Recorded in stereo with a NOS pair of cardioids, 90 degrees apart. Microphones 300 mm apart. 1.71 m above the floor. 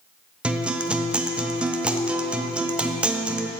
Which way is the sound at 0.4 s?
5° right.